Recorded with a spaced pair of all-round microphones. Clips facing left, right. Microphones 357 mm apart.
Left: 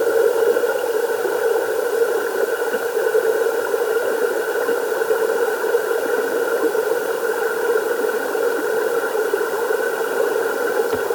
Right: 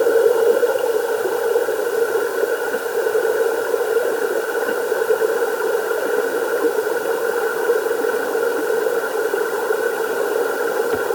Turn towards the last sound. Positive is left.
No sound to turn to.